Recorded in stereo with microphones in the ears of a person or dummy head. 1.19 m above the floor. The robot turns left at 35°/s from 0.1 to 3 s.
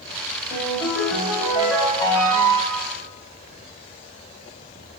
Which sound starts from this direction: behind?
A ringtone, at 0.5 s.